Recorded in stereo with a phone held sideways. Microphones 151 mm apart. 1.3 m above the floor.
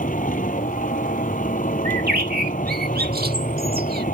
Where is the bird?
75° right (ahead or behind).